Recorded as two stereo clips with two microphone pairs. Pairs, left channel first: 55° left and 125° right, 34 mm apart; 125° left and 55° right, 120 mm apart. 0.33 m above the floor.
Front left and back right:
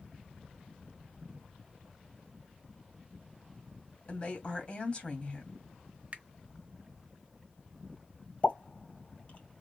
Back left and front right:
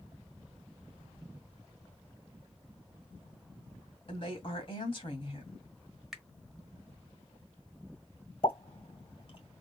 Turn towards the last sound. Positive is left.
turn(degrees=95)